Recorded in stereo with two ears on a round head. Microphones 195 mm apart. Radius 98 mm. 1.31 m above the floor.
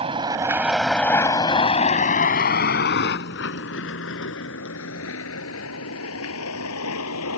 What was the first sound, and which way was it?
A vehicle, 25° right (ahead or behind).